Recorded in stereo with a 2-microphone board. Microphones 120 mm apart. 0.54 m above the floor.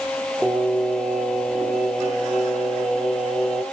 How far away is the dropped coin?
I don't hear a dropped coin.